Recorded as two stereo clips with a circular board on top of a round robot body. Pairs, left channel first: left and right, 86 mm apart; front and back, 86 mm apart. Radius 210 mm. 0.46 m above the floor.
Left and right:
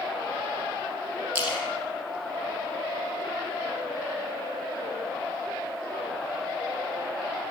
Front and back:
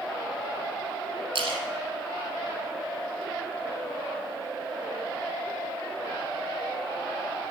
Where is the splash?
155° right, 5 m.